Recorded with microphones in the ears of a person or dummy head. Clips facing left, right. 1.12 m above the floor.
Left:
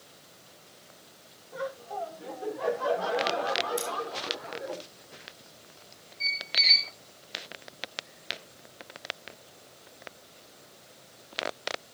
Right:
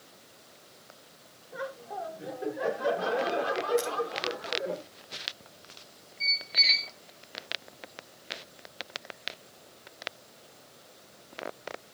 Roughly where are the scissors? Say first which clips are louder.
Right 4 dB; left.